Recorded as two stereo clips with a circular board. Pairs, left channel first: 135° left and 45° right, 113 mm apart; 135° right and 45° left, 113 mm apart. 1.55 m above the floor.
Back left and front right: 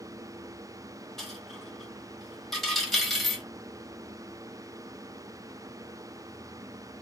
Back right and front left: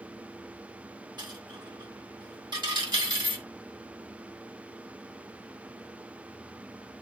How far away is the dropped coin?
About 1.6 m.